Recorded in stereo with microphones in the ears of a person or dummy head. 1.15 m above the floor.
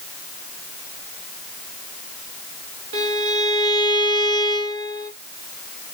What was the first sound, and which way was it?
A violin, 80° right.